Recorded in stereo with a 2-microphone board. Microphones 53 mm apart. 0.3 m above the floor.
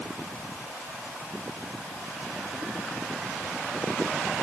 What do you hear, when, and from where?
Only background noise.